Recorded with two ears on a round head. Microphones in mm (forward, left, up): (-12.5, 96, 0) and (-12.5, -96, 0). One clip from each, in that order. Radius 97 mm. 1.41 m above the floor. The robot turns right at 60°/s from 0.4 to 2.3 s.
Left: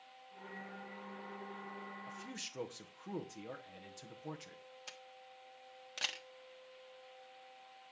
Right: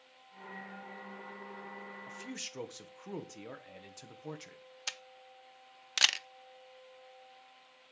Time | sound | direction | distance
2.1 | a man speaking | 25° right (ahead or behind) | 1.3 m
4.9 | a camera shutter | 55° right (ahead or behind) | 0.5 m